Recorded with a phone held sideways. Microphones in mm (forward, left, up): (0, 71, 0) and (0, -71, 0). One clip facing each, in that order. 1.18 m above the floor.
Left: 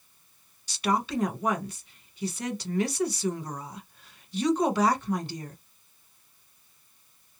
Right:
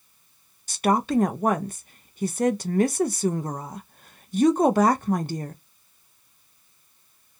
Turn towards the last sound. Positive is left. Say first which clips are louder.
# right 6 dB
turn(degrees=-50)  # may be behind; listen again after turning